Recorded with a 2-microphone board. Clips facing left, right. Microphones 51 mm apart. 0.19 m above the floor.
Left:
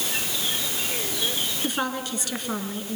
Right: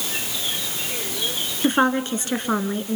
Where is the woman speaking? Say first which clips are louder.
Right 11 dB; 40° right (ahead or behind), 2 m.